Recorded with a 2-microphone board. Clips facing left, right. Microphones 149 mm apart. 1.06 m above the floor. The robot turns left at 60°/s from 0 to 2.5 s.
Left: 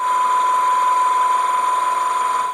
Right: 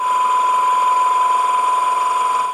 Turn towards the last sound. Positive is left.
No sound to turn to.